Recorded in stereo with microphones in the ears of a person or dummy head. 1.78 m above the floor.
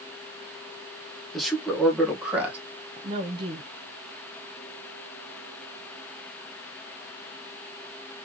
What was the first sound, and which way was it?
A man speaking, centre (ahead or behind).